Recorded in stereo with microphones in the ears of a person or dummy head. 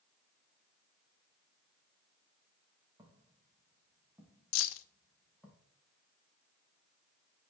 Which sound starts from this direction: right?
Footsteps, at 3.0 s.